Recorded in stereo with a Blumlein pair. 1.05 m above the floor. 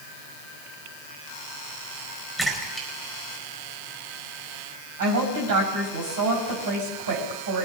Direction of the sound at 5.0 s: 60° right.